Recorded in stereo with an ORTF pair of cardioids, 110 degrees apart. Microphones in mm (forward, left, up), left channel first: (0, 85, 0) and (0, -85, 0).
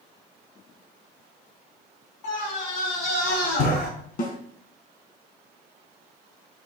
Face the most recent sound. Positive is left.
turn(degrees=50)